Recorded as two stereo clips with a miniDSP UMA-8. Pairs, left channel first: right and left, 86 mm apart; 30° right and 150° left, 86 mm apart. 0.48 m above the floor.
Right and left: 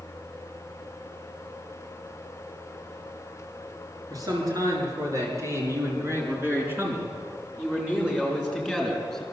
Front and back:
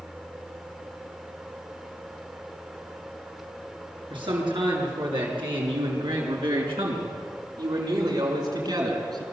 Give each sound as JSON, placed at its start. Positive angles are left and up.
{"t": 4.1, "sound": "a man speaking", "azimuth_deg": 135, "distance_m": 7.0}